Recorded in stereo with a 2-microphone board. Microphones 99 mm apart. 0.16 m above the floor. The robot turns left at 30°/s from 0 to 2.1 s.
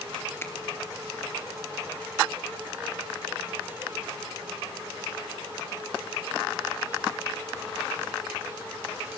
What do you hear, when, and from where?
0.4 s a finger snap: 25° left (ahead or behind), 3 m; by 0.5 s 20° left (ahead or behind), 3 m